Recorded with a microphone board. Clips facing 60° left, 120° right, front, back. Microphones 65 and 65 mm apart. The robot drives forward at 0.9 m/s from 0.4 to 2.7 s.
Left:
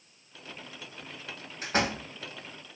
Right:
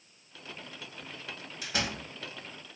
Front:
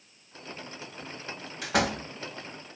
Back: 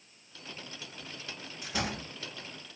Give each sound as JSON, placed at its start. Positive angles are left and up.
{"t": 1.6, "sound": "a door slam", "azimuth_deg": 5, "distance_m": 3.5}